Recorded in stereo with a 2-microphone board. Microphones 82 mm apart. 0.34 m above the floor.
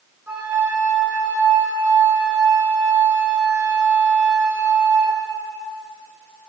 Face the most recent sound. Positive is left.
turn(degrees=-25)  # may be behind; listen again after turning